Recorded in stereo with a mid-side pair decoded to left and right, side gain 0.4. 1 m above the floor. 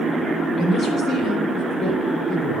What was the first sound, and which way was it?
A woman speaking, 65° left.